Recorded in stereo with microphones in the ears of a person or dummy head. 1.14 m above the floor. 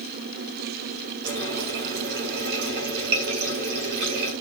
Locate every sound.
1.2 s a running tap: 60° right (ahead or behind), 4.5 m